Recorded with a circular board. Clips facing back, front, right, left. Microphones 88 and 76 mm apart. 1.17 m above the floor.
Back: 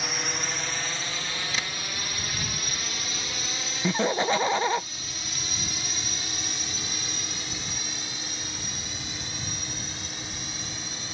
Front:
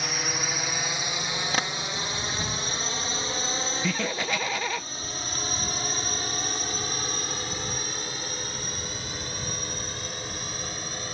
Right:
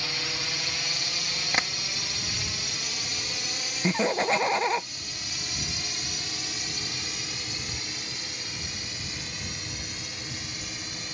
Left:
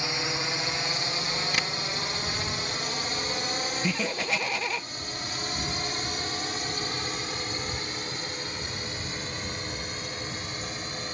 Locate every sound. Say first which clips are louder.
0.0 s a drone: front 1 dB, left 4 dB; 90° left; by 11.1 s 40° left
1.5 s tapping: front 6 dB, right 4 dB; 35° right
3.8 s laughter: back 8 dB, right 8 dB; 130° right